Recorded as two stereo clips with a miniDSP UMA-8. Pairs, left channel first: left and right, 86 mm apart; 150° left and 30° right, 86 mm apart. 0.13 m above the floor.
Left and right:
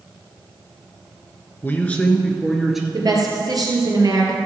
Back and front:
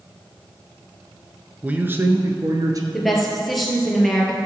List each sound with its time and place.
1.6 s a man speaking: 35° left, 1.3 m; by 2.8 s 5° right, 1.7 m
2.9 s a woman speaking: 120° right, 2.5 m